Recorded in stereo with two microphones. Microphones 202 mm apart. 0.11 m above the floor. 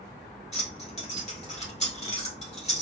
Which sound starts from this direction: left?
Keys jangling, at 0.5 s.